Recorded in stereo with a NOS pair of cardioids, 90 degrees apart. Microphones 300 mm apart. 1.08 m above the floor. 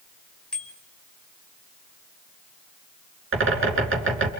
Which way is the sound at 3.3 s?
40° right.